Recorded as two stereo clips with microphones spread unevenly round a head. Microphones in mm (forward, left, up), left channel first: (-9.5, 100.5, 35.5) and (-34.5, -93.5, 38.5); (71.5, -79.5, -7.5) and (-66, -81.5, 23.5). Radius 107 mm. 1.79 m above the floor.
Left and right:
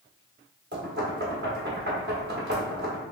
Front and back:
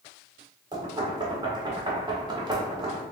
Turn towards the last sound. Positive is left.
turn(degrees=-130)